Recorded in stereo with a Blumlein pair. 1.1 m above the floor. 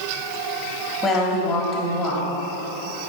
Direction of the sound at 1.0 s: 20° left.